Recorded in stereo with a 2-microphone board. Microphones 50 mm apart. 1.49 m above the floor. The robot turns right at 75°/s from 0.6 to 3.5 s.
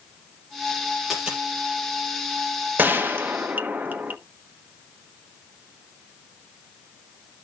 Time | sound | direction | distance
1.1 | a dropped coin | centre (ahead or behind) | 5 m
2.8 | a gunshot | 115° right | 1.0 m